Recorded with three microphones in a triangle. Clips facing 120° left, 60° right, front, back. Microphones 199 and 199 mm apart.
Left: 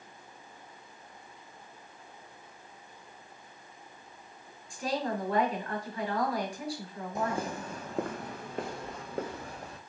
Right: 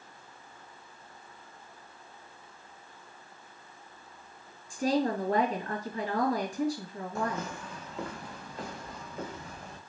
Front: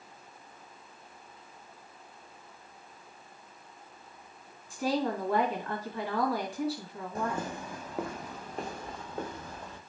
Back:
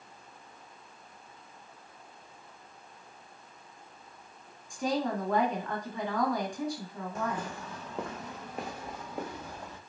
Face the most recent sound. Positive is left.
turn(degrees=105)